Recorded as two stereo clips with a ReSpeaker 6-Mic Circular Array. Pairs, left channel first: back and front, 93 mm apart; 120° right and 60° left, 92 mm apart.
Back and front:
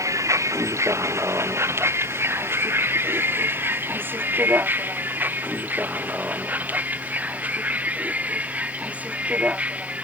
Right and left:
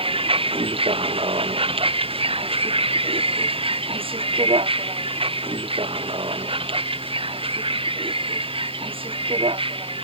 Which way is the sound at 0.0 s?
55° left.